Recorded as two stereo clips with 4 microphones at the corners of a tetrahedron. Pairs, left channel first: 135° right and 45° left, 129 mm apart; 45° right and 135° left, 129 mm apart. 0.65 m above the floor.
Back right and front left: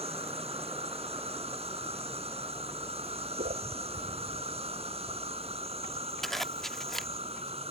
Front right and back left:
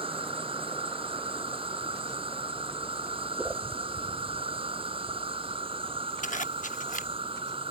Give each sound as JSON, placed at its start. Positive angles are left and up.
{"t": 0.0, "sound": "an insect", "azimuth_deg": 85}
{"t": 3.4, "sound": "a whoosh", "azimuth_deg": 55}
{"t": 6.2, "sound": "a zipper", "azimuth_deg": -45}